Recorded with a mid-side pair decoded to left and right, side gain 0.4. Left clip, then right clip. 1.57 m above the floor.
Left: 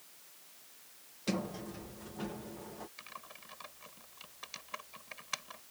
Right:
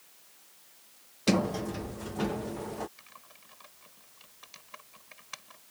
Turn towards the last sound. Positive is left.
turn(degrees=35)